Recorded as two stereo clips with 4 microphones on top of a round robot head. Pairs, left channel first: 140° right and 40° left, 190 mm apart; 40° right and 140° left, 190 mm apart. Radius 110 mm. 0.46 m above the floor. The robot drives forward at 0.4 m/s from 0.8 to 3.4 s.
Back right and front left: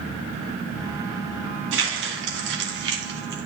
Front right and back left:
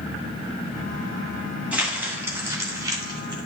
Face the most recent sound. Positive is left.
turn(degrees=75)